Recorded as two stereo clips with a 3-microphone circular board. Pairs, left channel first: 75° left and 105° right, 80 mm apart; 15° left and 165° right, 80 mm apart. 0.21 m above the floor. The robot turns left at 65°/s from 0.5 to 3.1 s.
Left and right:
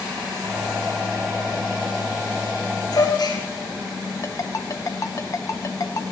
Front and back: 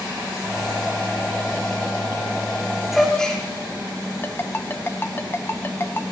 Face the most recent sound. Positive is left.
turn(degrees=60)